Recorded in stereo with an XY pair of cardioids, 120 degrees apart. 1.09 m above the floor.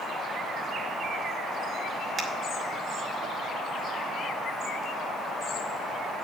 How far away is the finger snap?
About 2 m.